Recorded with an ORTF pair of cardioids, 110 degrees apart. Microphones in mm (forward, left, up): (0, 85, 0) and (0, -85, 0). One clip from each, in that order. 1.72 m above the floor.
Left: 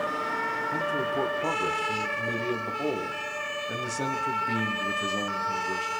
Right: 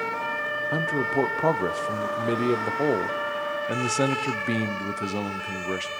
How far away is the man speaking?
About 1.1 m.